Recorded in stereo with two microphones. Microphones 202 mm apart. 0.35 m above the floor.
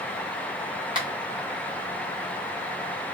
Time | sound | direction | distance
0.9 | a finger snap | 25° right (ahead or behind) | 1.4 m